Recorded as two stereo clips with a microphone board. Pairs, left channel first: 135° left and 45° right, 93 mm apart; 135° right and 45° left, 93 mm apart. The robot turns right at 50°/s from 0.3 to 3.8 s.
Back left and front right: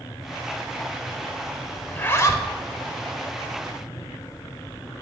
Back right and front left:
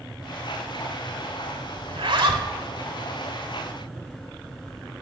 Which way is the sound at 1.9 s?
60° left.